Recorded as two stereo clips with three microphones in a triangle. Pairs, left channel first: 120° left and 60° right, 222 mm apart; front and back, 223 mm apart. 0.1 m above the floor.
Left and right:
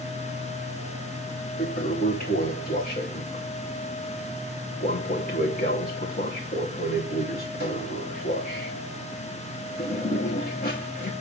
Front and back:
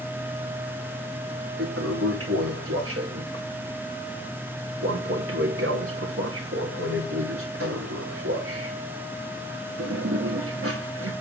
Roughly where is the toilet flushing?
Behind.